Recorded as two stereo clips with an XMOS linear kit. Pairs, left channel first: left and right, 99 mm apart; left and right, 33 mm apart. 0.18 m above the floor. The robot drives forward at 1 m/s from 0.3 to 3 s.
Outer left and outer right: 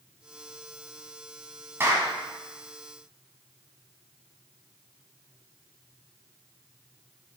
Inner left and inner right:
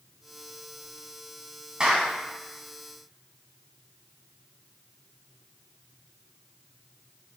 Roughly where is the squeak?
No squeak in this recording.